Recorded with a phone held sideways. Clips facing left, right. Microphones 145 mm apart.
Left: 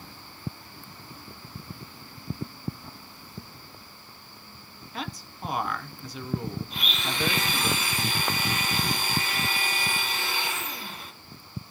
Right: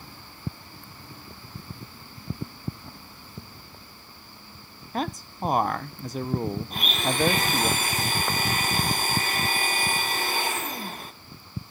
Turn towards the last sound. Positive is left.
turn(degrees=-45)  # may be behind; listen again after turning